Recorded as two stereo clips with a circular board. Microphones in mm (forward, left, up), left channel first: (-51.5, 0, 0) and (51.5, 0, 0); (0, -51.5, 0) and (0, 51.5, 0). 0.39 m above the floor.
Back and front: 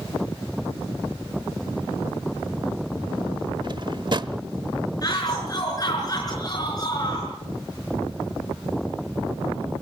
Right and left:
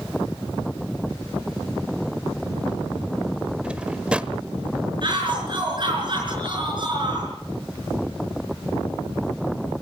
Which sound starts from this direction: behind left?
A shout, at 5.0 s.